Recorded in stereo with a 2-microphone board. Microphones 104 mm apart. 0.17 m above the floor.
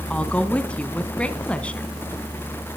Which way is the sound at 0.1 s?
10° left (ahead or behind).